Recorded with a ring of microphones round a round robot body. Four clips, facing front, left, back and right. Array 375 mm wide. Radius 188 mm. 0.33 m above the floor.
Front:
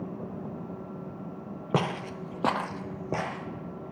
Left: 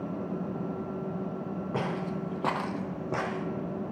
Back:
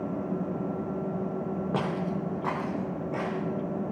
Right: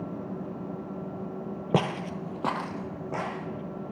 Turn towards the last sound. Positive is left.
turn(degrees=30)